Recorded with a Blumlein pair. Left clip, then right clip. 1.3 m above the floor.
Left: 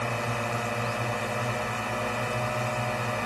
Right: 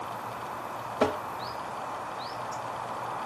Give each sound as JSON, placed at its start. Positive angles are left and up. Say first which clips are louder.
{"t": 0.0, "sound": "a drone", "louder": "left 6 dB", "azimuth_deg": 40}
{"t": 1.0, "sound": "tapping", "louder": "right 3 dB", "azimuth_deg": -55}